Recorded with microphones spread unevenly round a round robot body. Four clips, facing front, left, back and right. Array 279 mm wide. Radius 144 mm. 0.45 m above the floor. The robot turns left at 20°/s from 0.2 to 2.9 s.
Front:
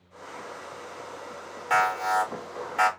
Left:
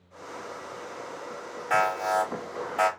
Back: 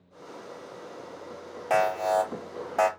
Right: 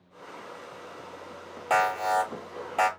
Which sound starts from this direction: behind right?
An alarm, at 1.7 s.